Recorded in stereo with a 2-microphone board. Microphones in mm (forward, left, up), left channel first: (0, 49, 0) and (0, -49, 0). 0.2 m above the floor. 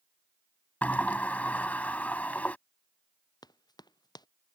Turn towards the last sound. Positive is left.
turn(degrees=45)  # may be behind; listen again after turning